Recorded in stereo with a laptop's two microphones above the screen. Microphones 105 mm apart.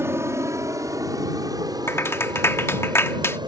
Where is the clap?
25° left (ahead or behind).